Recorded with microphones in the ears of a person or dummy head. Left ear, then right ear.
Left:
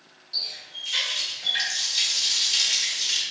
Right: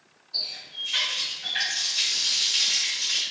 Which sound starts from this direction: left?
A running tap, at 0.3 s.